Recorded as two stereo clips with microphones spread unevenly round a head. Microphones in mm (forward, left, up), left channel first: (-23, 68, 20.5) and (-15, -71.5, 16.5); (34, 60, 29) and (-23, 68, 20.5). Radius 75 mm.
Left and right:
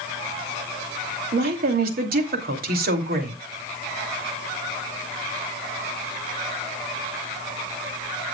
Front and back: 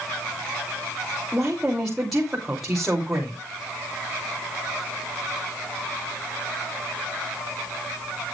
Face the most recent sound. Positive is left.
turn(degrees=-100)